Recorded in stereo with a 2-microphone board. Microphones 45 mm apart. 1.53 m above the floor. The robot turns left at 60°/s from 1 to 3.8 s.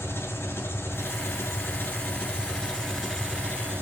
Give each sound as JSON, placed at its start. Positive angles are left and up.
{"t": 0.0, "sound": "an engine running", "azimuth_deg": 120, "distance_m": 6.5}